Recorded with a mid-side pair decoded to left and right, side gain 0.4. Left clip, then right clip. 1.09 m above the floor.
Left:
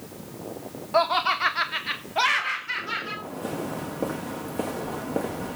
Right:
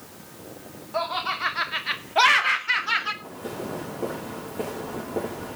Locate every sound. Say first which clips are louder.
0.9 s laughter: left 5 dB; 55° left, 1.0 m; by 3.1 s 60° right, 1.8 m
3.2 s footsteps: left 2 dB; 40° left, 6 m